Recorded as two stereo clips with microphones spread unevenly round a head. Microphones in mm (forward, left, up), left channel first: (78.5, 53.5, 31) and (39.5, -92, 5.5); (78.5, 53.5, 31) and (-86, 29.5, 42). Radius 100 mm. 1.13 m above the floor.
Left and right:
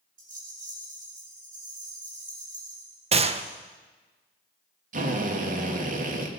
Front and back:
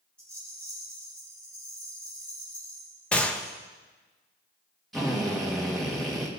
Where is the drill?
80° right, 1.7 m.